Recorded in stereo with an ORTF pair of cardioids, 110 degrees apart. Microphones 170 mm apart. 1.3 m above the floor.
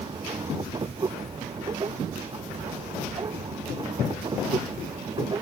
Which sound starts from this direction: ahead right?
A machine running, at 0.0 s.